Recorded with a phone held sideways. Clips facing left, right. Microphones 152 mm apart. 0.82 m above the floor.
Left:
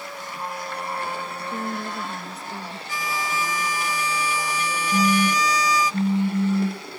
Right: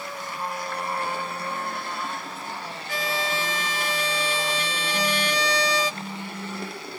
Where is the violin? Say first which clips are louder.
Right 2 dB; 60° right (ahead or behind).